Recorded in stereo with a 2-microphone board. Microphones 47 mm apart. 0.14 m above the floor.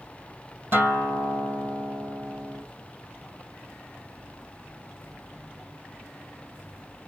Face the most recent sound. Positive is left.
turn(degrees=-50)  # may be behind; listen again after turning